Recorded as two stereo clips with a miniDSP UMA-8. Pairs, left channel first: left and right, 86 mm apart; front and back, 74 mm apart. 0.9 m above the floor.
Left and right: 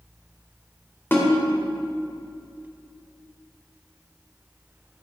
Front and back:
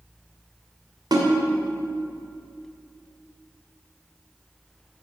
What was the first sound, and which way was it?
A snare drum, 155° left.